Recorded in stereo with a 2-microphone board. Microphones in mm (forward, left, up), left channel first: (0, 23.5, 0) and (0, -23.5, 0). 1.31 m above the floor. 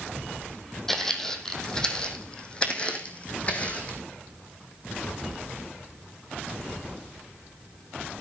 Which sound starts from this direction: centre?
Footsteps, at 0.9 s.